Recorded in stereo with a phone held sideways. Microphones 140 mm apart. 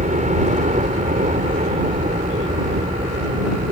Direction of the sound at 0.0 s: 60° right (ahead or behind).